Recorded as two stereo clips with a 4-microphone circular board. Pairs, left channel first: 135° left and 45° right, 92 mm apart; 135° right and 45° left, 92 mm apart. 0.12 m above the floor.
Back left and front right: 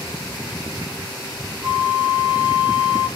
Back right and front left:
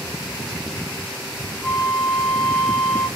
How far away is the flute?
About 1.7 m.